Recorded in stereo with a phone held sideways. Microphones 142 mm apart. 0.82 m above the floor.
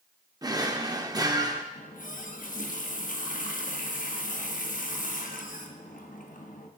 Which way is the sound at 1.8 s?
70° left (ahead or behind).